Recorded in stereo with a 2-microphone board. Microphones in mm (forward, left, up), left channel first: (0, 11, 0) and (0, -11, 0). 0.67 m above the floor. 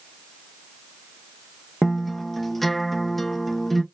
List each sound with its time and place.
1.8 s a guitar: centre (ahead or behind), 1.0 m